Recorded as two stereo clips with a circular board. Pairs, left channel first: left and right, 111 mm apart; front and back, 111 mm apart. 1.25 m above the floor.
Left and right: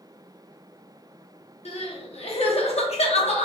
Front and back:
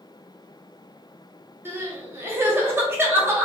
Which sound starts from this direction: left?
Crying, at 1.6 s.